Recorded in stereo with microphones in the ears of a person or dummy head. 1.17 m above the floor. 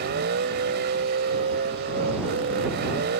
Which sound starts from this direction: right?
A vehicle, at 0.0 s.